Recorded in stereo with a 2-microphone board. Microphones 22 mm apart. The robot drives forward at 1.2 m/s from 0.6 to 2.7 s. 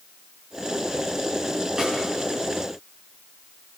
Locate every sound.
1.8 s a snare drum: 35° right (ahead or behind), 9.5 m